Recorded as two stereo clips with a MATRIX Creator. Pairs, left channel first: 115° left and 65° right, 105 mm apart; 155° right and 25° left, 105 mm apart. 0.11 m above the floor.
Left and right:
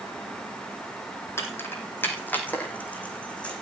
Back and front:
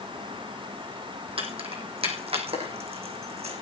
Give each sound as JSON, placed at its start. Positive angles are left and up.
{"t": 1.4, "sound": "keys jangling", "azimuth_deg": 45, "distance_m": 3.5}